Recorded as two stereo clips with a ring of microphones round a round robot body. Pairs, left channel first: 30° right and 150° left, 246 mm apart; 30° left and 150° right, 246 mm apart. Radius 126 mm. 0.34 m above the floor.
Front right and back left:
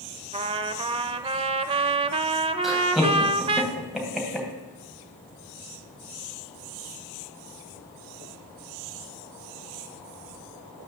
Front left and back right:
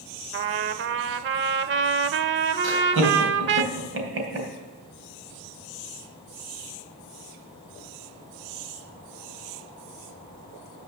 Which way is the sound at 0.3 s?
150° right.